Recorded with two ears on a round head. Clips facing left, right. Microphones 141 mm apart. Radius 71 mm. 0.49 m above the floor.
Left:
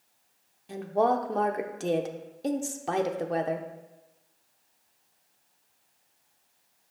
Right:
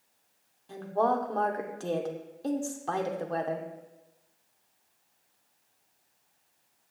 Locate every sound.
0.7 s a woman speaking: 20° left (ahead or behind), 0.9 m